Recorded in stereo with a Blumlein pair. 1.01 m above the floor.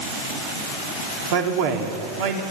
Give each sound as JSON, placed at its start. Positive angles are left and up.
{"t": 1.3, "sound": "a man speaking", "azimuth_deg": -50, "distance_m": 3.0}